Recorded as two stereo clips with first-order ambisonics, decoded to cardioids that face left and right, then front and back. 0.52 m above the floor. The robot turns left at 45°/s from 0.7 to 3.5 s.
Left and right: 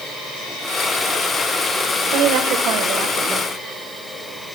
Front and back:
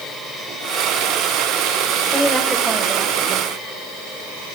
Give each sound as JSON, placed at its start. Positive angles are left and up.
{"t": 2.1, "sound": "a woman speaking", "azimuth_deg": -75, "distance_m": 1.7}